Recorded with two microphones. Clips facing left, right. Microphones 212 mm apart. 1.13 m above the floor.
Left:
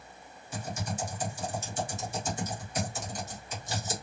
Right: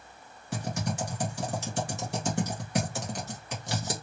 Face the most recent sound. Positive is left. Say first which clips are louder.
# right 4 dB
turn(degrees=-60)  # may be behind; listen again after turning